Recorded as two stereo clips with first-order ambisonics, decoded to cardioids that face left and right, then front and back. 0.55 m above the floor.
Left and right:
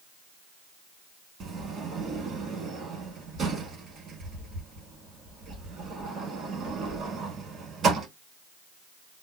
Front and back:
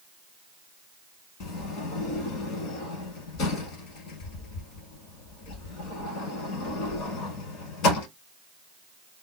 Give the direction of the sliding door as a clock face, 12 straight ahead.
1 o'clock.